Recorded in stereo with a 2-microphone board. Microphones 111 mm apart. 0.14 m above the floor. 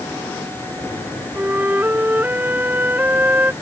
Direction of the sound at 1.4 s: 20° right (ahead or behind).